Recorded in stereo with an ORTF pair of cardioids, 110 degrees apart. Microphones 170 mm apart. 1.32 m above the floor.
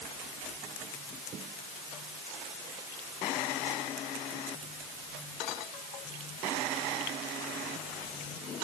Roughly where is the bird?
I don't hear a bird.